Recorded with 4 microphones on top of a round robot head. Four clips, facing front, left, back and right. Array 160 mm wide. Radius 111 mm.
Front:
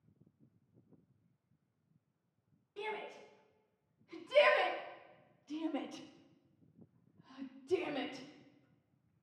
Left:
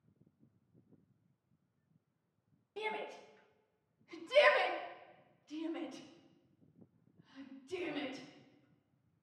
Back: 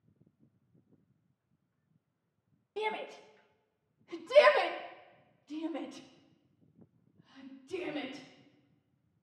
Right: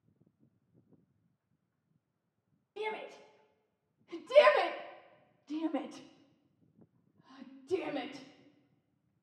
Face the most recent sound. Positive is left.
turn(degrees=-50)